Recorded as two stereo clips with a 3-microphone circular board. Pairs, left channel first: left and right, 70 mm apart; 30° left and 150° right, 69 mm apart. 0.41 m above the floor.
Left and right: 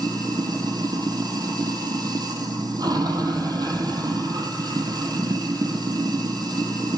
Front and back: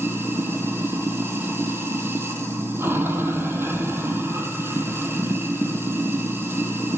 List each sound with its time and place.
0.0 s running water: 95° right, 1.3 m